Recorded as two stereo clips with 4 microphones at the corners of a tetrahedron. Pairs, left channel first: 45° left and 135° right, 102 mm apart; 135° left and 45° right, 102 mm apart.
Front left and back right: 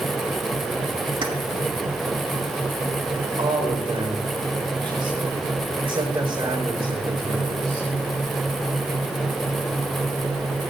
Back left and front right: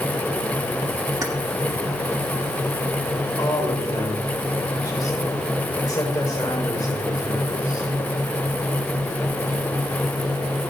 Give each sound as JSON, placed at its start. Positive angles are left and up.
{"t": 1.2, "sound": "keys jangling", "azimuth_deg": -100, "distance_m": 2.5}
{"t": 3.4, "sound": "a man speaking", "azimuth_deg": -175, "distance_m": 4.5}